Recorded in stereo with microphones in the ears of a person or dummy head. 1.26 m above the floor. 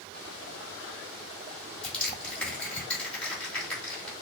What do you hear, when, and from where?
1.8 s crushing: 5° left (ahead or behind), 2.5 m